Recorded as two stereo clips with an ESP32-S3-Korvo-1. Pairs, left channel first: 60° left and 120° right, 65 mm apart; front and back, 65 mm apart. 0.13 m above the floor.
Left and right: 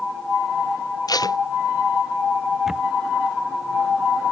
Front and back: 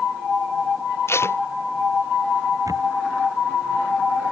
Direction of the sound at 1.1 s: 45° left.